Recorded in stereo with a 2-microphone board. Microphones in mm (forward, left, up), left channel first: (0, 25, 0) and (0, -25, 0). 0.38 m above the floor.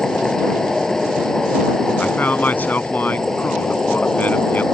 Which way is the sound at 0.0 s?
10° left (ahead or behind).